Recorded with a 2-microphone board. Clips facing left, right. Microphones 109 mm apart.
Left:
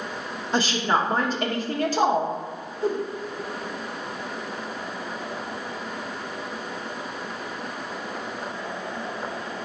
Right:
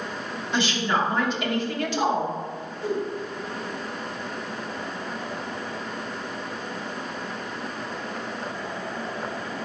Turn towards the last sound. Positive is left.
turn(degrees=45)  # may be behind; listen again after turning